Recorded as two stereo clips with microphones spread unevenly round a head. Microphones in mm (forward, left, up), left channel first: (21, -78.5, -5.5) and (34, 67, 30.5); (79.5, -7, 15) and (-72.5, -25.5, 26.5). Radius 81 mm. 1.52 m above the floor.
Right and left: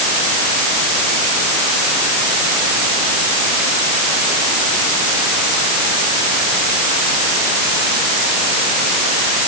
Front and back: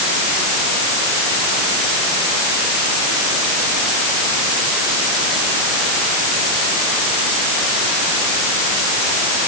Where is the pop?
I don't hear a pop.